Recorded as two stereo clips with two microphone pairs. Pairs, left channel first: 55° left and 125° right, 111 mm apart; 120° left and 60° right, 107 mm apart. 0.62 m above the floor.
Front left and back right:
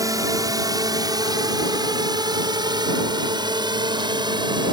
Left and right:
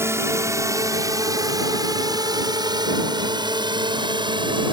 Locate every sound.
0.0 s a drone: 105° right; by 4.7 s 90° right